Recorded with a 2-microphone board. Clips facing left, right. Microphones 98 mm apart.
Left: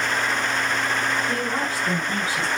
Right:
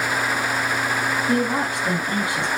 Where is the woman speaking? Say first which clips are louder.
Right 4 dB; 20° right (ahead or behind), 1.5 m.